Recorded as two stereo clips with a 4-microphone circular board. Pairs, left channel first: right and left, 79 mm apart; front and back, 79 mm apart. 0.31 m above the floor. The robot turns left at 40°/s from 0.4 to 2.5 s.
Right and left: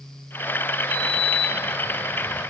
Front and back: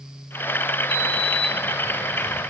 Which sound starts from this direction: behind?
A sliding door, at 0.9 s.